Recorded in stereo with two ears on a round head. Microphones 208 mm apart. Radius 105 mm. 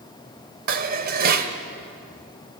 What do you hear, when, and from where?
0.7 s dishes clattering: 40° right (ahead or behind), 1.1 m